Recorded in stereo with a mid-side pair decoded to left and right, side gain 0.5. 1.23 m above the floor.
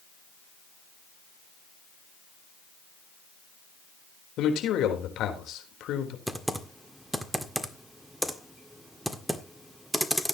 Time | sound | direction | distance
4.4 | a man speaking | 70° left | 4 m
6.3 | typing on a keyboard | 5° right | 1.7 m